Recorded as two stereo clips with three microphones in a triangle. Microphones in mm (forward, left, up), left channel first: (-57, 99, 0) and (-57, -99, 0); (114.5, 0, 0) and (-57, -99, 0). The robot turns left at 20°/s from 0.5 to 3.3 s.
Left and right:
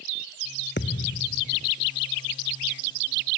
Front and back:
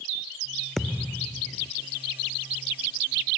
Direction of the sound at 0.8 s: 120° left.